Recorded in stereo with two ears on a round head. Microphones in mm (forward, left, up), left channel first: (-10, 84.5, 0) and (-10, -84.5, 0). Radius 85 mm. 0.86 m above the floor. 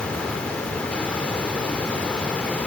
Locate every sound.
Only background noise.